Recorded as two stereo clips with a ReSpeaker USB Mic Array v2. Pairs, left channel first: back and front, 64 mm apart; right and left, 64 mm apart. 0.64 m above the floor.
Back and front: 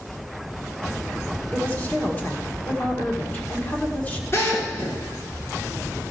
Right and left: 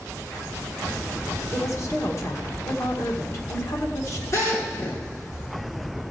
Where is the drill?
130° right, 5 m.